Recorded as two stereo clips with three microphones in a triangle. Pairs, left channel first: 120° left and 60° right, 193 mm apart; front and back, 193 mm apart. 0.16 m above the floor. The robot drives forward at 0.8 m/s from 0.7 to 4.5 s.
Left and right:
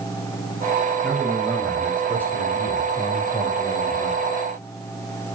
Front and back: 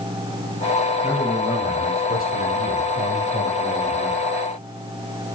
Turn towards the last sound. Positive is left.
turn(degrees=50)